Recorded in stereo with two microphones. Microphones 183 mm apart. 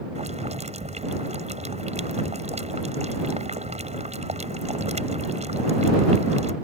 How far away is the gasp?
No gasp in this recording.